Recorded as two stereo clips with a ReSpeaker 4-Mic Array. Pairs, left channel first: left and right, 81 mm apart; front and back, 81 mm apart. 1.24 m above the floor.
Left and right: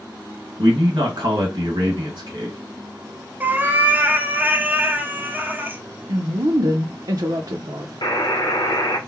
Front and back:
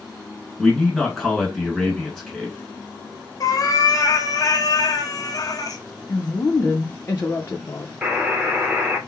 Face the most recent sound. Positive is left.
turn(degrees=110)